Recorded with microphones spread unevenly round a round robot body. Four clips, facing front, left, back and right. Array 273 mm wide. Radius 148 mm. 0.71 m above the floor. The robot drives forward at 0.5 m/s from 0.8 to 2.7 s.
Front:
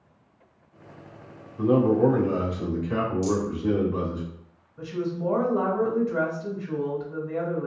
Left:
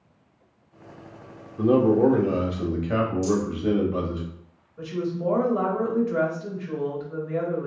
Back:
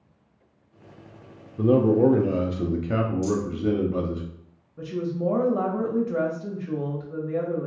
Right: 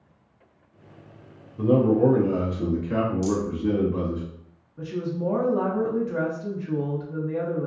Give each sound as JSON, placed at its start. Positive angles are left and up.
{"t": 1.6, "sound": "a man speaking", "azimuth_deg": 160, "distance_m": 0.5}
{"t": 3.2, "sound": "a rattle", "azimuth_deg": -100, "distance_m": 1.8}
{"t": 4.8, "sound": "a woman speaking", "azimuth_deg": -165, "distance_m": 1.1}